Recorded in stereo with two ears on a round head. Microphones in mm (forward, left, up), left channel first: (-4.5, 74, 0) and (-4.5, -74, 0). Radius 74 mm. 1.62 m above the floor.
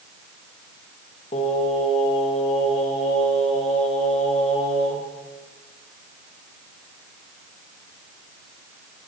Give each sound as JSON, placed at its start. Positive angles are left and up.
{"t": 1.3, "sound": "singing", "side_deg": 40, "distance_m": 2.5}